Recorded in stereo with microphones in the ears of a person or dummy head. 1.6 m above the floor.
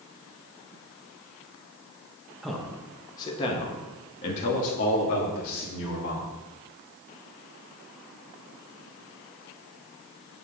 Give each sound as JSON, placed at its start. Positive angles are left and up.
{"t": 2.4, "sound": "a man speaking", "side_deg": 0, "distance_m": 1.4}